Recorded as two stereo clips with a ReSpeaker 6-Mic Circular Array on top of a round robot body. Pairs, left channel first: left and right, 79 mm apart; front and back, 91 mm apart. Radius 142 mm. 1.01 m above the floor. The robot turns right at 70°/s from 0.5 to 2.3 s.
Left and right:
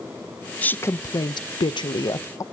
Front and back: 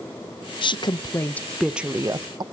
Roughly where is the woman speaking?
Ahead.